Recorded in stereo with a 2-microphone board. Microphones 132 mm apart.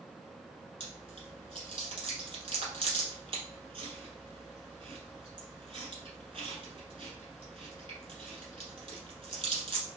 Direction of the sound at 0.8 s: 45° right (ahead or behind).